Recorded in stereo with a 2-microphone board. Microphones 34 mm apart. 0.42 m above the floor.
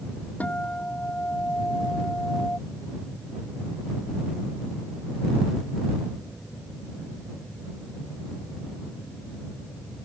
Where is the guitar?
55° left (ahead or behind).